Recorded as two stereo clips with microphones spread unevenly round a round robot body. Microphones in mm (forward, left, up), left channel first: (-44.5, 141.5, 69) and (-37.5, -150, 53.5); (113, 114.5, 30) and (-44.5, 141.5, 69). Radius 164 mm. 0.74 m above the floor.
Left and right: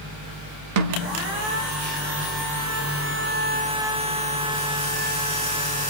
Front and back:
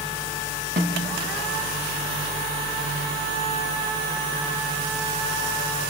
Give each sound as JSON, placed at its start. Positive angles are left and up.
{"t": 0.8, "sound": "a snare drum", "azimuth_deg": -125, "distance_m": 1.2}